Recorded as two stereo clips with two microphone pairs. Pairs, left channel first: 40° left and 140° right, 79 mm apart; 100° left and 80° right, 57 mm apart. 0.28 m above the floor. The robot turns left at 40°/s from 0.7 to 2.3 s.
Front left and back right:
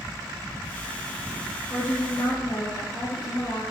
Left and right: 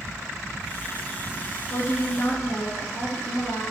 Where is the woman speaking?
95° left, 4 m; by 3.6 s 70° left, 4 m.